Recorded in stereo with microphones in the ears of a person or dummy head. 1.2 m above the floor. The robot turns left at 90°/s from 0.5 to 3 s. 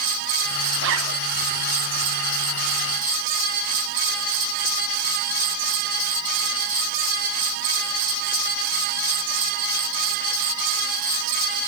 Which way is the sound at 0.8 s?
60° right.